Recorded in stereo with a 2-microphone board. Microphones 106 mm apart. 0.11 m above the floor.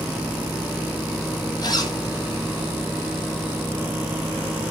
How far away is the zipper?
About 0.9 m.